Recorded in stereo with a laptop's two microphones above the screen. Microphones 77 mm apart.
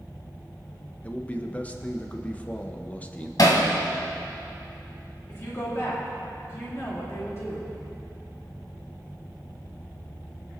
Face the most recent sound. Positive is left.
turn(degrees=40)  # may be behind; listen again after turning